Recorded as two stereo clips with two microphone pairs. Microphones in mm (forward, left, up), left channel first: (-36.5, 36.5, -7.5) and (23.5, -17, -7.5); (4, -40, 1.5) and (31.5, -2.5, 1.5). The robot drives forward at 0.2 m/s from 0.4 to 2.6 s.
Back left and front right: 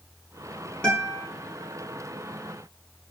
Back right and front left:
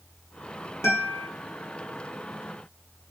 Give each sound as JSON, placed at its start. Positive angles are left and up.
{"t": 0.8, "sound": "a guitar", "azimuth_deg": -145, "distance_m": 1.0}